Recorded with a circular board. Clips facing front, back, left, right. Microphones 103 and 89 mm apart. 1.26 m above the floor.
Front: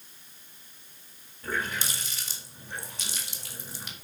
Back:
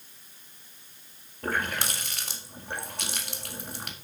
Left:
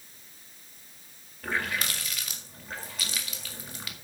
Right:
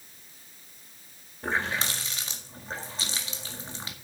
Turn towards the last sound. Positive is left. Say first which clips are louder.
# back 2 dB, right 2 dB
turn(degrees=-150)